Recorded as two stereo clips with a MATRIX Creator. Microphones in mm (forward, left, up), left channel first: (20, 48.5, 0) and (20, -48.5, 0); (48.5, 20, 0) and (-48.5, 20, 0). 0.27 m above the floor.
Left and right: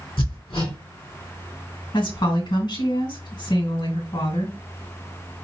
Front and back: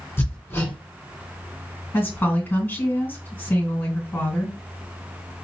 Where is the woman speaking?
70° left, 3 m.